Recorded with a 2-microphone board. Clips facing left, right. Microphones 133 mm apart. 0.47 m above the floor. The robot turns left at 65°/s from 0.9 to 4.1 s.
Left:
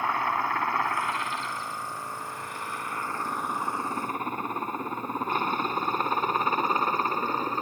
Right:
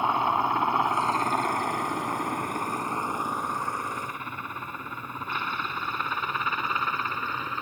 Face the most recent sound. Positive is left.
turn(degrees=40)  # may be behind; listen again after turning